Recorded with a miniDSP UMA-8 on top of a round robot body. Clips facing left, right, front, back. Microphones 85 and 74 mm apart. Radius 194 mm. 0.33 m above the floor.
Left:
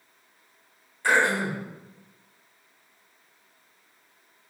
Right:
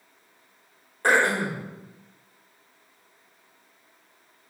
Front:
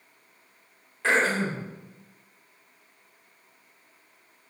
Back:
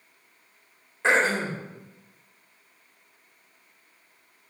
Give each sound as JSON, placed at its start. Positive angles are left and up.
{"t": 1.0, "sound": "throat clearing", "azimuth_deg": -115, "distance_m": 1.2}